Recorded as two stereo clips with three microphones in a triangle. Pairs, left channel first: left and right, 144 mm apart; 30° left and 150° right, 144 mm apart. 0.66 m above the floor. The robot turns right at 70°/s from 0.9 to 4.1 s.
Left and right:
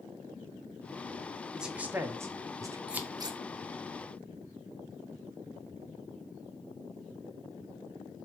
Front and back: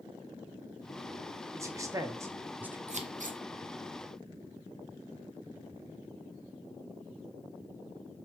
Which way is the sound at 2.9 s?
175° right.